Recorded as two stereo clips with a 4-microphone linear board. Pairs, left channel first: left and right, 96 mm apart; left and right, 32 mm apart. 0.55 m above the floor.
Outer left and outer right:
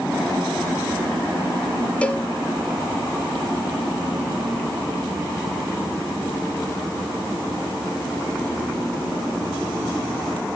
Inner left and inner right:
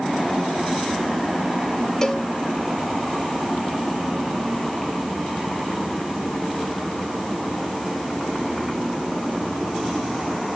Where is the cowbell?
15° left (ahead or behind), 0.8 m.